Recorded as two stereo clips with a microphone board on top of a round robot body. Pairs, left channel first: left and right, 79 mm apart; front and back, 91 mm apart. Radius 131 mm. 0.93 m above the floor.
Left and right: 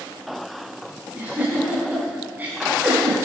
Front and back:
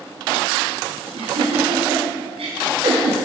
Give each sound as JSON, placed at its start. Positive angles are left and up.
{"t": 1.1, "sound": "a giggle", "azimuth_deg": -160, "distance_m": 4.5}